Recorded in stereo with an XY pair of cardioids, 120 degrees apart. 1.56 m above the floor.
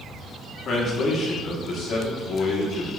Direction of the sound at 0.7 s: 55° left.